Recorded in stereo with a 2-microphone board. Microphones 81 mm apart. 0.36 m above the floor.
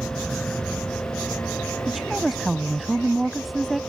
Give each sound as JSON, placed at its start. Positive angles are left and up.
{"t": 0.0, "sound": "an aircraft", "side_deg": 10}
{"t": 1.9, "sound": "a woman speaking", "side_deg": 0}